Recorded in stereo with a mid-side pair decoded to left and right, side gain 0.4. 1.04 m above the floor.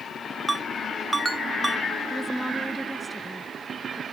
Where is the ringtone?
25° right.